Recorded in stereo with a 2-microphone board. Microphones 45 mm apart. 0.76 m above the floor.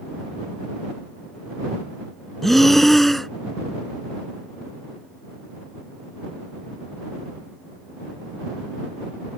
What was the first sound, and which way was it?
Breathing, 5° left (ahead or behind).